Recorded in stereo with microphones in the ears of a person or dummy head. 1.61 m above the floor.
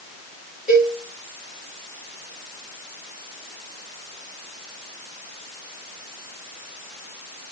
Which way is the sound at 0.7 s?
Centre (ahead or behind).